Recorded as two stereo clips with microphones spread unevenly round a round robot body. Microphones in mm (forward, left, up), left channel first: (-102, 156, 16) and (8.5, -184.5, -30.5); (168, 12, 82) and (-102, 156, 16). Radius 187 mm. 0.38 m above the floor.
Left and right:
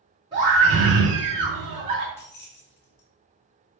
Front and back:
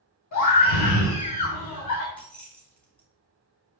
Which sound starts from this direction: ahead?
A scream, at 0.3 s.